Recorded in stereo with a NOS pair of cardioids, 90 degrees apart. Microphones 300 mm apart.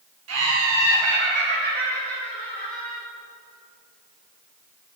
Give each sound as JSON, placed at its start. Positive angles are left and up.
{"t": 0.3, "sound": "laughter", "azimuth_deg": -55, "distance_m": 1.4}